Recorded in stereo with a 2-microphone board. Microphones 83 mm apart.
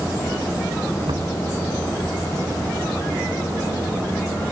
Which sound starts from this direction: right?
Knocking, at 1.1 s.